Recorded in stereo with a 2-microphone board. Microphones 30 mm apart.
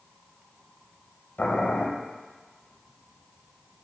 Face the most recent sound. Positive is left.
turn(degrees=65)  # may be behind; listen again after turning